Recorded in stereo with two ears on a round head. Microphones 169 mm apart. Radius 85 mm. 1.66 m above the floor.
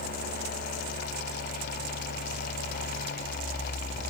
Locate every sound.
Only background noise.